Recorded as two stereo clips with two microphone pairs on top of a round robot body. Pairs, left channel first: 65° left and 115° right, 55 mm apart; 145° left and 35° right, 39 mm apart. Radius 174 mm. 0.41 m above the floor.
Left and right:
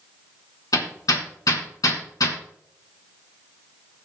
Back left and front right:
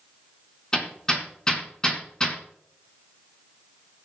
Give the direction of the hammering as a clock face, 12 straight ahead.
10 o'clock.